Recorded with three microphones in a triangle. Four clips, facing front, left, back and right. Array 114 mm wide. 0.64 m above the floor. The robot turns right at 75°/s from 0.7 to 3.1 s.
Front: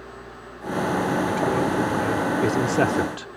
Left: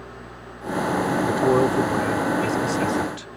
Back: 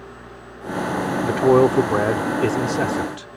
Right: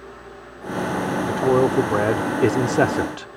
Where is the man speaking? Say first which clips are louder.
Right 2 dB, back 7 dB; 165° left; by 3.4 s 55° right.